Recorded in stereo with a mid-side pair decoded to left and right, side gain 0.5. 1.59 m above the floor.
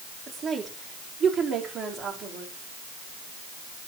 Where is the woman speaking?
40° right, 5 m; by 2.5 s 55° right, 5 m.